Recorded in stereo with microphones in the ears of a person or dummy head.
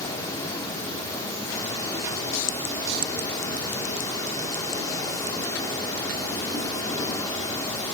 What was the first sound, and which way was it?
An insect, 15° left (ahead or behind).